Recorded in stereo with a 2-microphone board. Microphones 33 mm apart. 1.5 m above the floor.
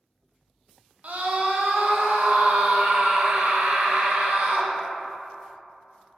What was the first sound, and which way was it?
A scream, 55° right (ahead or behind).